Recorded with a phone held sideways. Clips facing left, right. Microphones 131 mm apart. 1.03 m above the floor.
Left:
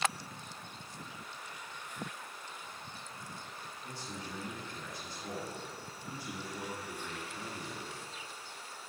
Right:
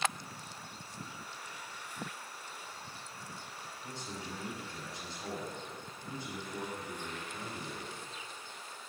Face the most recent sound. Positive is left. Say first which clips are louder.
# right 1 dB
turn(degrees=-25)  # may be behind; listen again after turning